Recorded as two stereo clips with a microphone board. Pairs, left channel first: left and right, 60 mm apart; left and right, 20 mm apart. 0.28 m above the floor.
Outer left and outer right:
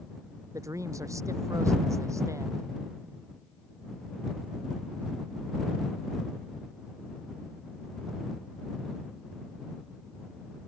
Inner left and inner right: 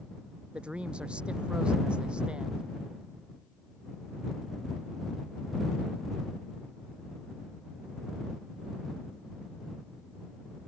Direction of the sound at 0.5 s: 60° right (ahead or behind).